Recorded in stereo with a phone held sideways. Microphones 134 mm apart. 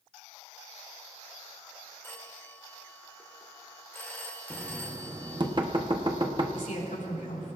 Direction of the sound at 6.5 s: 85° left.